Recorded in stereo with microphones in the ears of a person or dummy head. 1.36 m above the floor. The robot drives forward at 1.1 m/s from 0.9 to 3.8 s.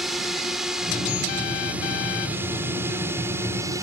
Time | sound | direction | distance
0.0 | a drone | centre (ahead or behind) | ?